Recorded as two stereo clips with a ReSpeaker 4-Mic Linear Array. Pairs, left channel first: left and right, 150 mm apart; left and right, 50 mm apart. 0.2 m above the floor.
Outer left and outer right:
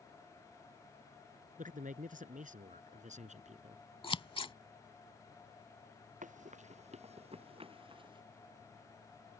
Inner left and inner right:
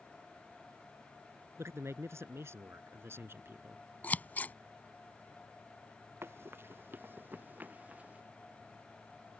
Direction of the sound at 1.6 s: 60° right (ahead or behind).